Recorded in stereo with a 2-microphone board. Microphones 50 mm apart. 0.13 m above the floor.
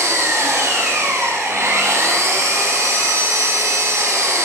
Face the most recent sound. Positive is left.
turn(degrees=-75)  # may be behind; listen again after turning